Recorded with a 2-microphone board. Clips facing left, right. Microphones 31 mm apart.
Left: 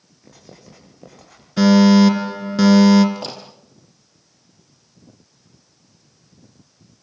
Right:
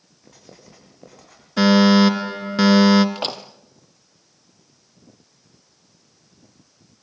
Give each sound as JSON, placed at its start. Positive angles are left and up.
{"t": 0.2, "sound": "writing", "side_deg": 0, "distance_m": 7.0}
{"t": 1.6, "sound": "a fire alarm", "side_deg": -20, "distance_m": 2.5}
{"t": 3.1, "sound": "a door slam", "side_deg": -55, "distance_m": 2.5}